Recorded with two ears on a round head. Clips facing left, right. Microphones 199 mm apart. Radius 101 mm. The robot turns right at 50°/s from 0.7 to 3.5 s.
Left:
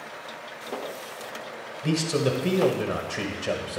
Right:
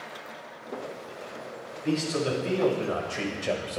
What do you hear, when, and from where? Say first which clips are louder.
1.8 s a man speaking: left 2 dB; 90° left, 1.7 m; by 3.8 s 175° left, 1.7 m